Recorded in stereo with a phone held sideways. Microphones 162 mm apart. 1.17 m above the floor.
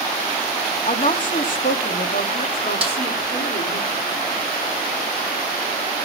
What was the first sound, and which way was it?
A woman speaking, 50° left (ahead or behind).